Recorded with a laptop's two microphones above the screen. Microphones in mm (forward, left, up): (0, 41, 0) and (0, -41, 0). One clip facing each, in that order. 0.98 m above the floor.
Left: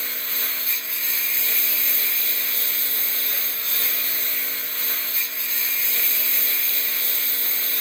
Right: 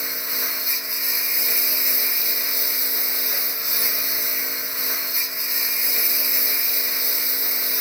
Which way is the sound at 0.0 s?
15° right (ahead or behind).